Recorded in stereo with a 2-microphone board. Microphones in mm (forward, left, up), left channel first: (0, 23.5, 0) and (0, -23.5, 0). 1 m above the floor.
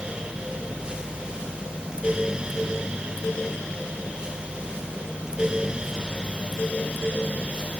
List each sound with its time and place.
Only background noise.